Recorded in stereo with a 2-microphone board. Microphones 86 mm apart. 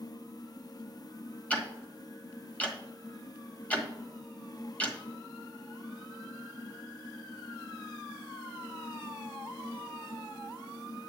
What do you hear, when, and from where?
1.5 s ticking: 15° left (ahead or behind), 1.4 m